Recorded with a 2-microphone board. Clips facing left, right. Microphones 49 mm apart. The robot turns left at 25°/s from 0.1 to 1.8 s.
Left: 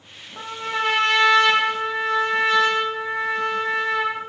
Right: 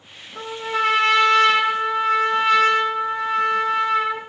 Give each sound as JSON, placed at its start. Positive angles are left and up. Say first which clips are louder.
{"t": 0.3, "sound": "a trumpet", "louder": "right 2 dB", "azimuth_deg": -130, "distance_m": 1.3}